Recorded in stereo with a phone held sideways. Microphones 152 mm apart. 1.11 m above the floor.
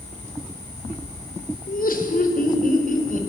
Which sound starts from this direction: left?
Laughter, at 1.7 s.